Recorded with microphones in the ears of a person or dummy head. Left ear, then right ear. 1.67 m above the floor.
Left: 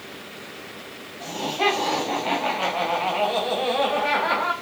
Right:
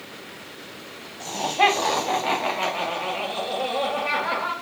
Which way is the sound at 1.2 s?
45° right (ahead or behind).